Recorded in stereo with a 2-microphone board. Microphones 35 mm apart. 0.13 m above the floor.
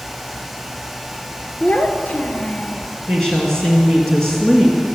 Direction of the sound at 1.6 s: 40° left (ahead or behind).